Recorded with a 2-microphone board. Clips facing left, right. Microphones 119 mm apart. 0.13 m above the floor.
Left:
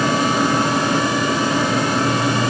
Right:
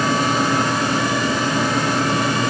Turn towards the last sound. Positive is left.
No sound to turn to.